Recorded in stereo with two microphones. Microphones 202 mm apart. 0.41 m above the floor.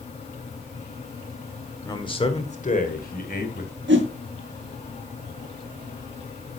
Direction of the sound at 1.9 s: 20° left (ahead or behind).